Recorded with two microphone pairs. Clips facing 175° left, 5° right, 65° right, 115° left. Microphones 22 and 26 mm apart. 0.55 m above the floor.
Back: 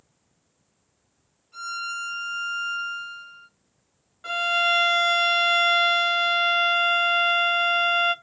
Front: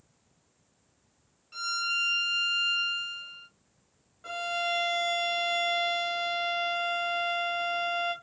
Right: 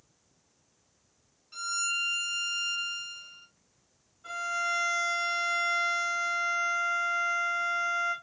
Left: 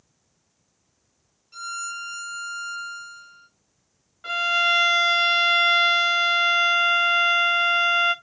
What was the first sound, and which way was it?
A violin, straight ahead.